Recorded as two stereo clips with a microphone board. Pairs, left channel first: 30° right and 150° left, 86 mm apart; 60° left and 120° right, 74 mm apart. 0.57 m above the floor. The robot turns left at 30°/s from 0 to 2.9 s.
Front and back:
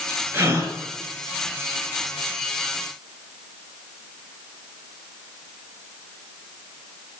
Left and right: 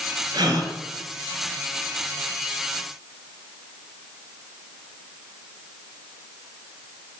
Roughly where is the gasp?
Behind right.